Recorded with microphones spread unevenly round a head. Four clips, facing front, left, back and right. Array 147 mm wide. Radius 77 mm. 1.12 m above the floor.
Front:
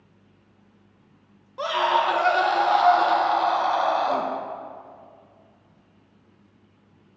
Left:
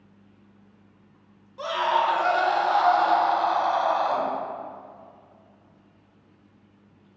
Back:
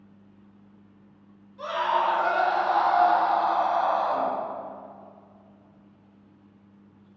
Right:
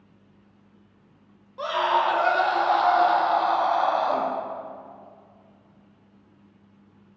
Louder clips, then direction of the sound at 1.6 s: Right 1 dB, front 3 dB; 15° right.